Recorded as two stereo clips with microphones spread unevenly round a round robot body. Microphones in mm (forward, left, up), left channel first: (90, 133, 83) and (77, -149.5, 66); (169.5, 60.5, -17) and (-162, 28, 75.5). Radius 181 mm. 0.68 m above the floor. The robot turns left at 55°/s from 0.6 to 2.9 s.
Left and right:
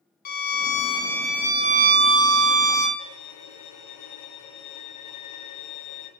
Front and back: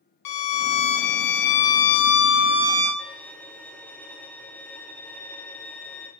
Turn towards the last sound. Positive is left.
turn(degrees=85)